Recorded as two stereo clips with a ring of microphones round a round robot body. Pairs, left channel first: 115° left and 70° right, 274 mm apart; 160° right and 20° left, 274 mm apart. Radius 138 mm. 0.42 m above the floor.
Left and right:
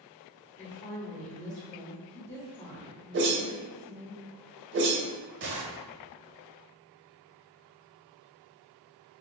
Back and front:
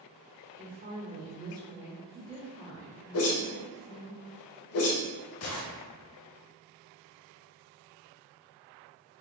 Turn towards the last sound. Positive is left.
turn(degrees=-120)